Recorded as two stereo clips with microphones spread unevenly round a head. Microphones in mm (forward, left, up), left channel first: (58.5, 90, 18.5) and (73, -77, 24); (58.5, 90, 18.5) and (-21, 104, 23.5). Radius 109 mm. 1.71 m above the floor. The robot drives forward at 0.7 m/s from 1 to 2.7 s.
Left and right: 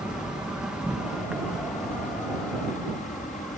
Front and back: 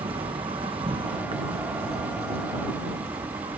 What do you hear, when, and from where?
0.0 s an insect: 170° right; by 3.6 s 175° right